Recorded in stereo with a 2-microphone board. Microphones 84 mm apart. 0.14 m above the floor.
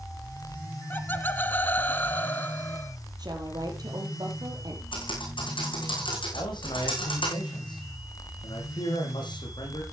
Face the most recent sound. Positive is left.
turn(degrees=65)  # may be behind; listen again after turning